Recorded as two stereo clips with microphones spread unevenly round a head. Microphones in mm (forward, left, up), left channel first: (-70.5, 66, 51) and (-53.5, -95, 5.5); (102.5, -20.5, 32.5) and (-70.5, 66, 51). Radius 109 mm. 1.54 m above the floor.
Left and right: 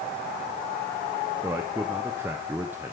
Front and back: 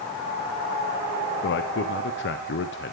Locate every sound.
1.4 s a man speaking: 5° right, 0.9 m